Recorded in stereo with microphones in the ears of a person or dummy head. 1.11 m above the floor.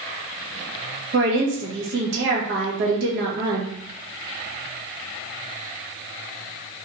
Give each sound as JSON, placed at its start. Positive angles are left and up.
{"t": 1.1, "sound": "a woman speaking", "side_deg": -60, "distance_m": 0.8}